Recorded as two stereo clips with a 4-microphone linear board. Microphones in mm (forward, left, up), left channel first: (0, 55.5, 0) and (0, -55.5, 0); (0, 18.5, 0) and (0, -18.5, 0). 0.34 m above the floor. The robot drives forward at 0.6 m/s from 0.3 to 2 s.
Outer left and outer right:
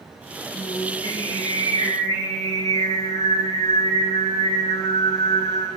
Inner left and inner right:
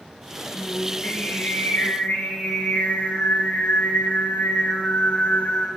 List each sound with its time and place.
0.5 s singing: 60° left (ahead or behind), 8.5 m; by 5.7 s 65° left (ahead or behind), 8 m